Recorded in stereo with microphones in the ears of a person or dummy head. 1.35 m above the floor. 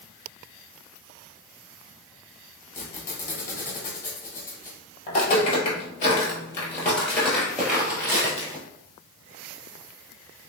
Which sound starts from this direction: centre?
A squeak, at 2.7 s.